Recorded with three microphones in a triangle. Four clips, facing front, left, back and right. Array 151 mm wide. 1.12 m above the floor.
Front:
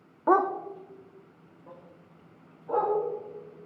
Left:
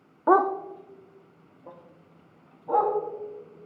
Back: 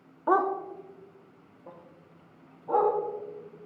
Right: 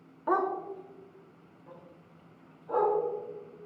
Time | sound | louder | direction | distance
0.3 | a dog barking | left 8 dB, front 2 dB | 70° left | 0.7 m